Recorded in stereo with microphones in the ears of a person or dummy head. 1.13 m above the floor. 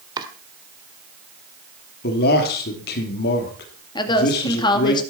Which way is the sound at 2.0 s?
55° left (ahead or behind).